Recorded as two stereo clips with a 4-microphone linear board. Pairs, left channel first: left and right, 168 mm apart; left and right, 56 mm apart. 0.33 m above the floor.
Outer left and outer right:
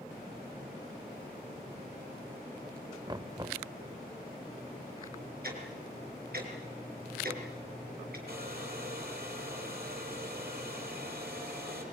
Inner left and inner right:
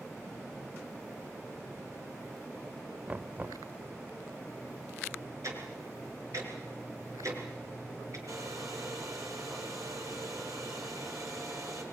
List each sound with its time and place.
3.1 s knocking: 25° right (ahead or behind), 0.6 m
5.4 s ticking: 65° right (ahead or behind), 5 m
8.3 s a hair dryer: 70° right (ahead or behind), 6.5 m